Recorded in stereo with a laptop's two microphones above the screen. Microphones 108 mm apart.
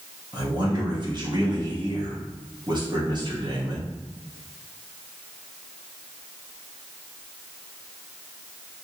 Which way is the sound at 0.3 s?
40° right (ahead or behind).